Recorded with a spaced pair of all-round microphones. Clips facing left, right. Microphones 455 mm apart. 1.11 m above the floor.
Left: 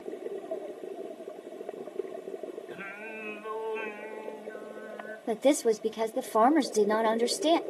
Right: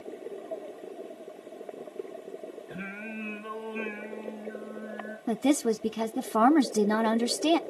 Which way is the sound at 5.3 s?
30° right (ahead or behind).